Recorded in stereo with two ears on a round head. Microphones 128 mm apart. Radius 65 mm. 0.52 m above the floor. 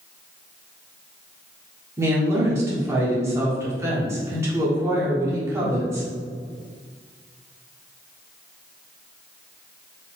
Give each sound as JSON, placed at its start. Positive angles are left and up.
{"t": 2.0, "sound": "a woman speaking", "side_deg": -20, "distance_m": 1.4}